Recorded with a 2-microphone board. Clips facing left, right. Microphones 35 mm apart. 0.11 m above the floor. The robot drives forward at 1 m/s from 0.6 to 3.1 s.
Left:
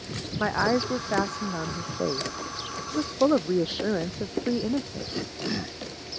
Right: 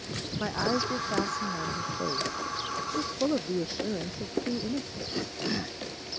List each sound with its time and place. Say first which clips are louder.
0.4 s a woman speaking: left 5 dB; 40° left (ahead or behind); by 5.1 s 60° left (ahead or behind)